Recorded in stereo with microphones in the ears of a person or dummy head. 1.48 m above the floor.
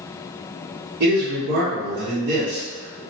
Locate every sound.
1.0 s a man speaking: 55° right (ahead or behind), 1.1 m